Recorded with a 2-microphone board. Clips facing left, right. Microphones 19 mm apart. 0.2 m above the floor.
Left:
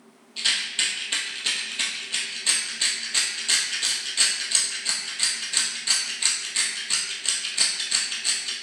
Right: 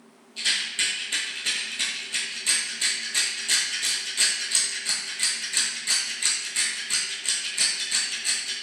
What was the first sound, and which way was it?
A rattle, 25° left (ahead or behind).